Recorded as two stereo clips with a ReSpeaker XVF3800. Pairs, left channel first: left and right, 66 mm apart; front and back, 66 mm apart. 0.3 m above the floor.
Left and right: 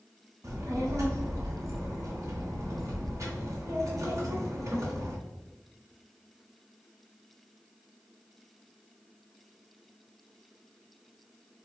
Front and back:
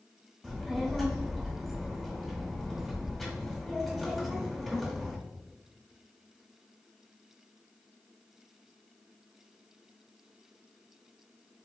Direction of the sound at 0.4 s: 85° right.